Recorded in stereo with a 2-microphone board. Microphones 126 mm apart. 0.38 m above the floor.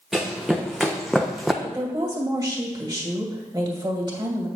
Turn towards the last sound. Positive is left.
turn(degrees=-35)  # may be behind; listen again after turning